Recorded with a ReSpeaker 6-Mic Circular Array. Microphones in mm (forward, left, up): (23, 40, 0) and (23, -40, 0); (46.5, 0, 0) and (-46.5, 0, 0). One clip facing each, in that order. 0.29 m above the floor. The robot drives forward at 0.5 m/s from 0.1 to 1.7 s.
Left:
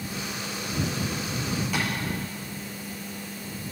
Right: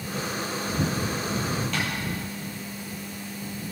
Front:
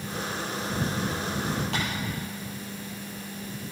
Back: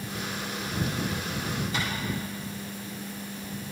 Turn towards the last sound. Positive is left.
turn(degrees=5)